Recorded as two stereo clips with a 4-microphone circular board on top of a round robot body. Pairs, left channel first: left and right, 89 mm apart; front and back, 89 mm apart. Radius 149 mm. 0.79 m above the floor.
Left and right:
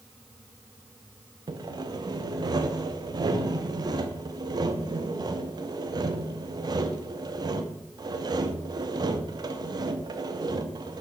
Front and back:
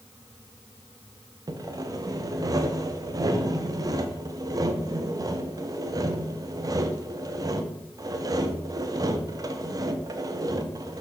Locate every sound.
1.5 s sawing: 135° right, 0.6 m